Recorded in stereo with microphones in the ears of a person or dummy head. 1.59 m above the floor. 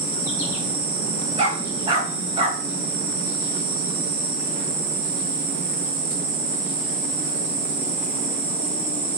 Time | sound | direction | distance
0.0 | an insect | 40° right (ahead or behind) | 2.5 m
1.4 | a dog barking | 30° right (ahead or behind) | 3 m